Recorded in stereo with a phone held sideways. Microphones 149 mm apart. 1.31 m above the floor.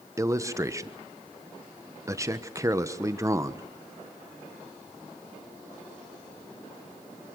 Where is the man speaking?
20° right (ahead or behind), 1.2 m.